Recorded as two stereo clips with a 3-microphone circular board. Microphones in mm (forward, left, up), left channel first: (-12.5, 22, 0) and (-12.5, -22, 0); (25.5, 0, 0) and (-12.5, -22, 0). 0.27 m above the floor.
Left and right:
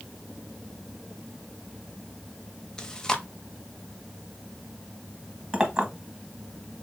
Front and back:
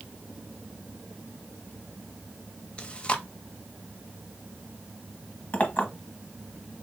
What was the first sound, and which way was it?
Chewing, 35° left.